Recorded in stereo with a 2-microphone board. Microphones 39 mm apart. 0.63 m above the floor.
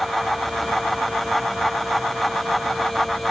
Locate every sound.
Only background noise.